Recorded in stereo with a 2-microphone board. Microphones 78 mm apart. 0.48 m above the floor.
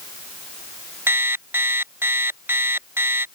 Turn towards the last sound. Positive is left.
turn(degrees=-30)  # may be behind; listen again after turning